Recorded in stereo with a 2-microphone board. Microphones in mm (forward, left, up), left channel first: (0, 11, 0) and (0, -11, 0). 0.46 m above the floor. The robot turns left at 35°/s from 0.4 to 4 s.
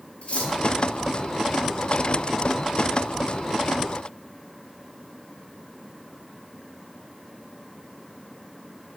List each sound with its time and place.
0.2 s cutlery clinking: 60° left (ahead or behind), 6.5 m; by 0.5 s 65° left (ahead or behind), 6.5 m